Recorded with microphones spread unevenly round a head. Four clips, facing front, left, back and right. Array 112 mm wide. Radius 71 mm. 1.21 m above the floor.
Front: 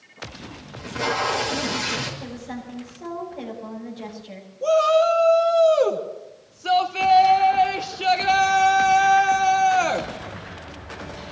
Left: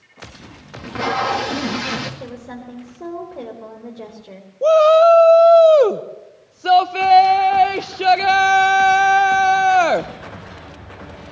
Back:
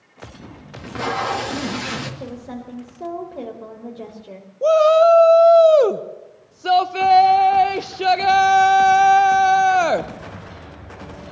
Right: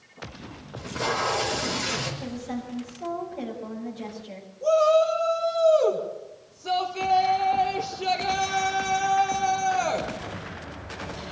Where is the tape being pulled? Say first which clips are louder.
Left 6 dB, back 1 dB; 100° left, 2 m.